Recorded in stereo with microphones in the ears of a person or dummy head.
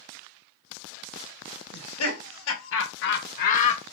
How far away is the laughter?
About 1.8 m.